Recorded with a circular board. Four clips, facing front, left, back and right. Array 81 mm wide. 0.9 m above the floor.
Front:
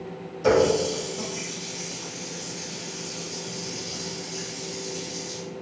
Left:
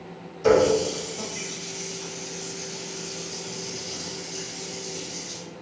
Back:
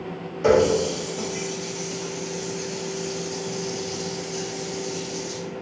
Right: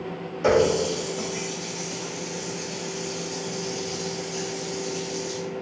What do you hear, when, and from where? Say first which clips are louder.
0.4 s a running tap: left 1 dB, back 2 dB; 130° right, 1.1 m